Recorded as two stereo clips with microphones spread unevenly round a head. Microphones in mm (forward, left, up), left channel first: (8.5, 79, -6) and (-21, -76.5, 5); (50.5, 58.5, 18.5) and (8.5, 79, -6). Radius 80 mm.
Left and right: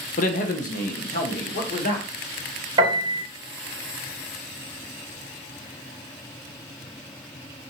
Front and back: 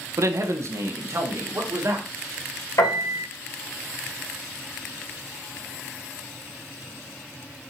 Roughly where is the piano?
Ahead right.